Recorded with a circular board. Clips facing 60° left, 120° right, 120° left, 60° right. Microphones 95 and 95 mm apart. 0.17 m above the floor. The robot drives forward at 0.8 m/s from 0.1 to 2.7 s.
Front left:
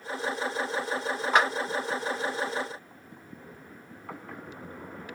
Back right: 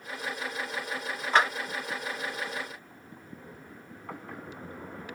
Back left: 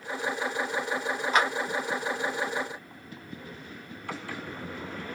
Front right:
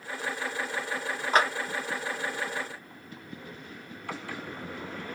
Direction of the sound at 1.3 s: 15° right.